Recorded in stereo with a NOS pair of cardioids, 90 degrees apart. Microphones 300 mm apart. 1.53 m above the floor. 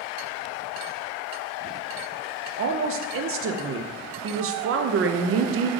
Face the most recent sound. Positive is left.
turn(degrees=-45)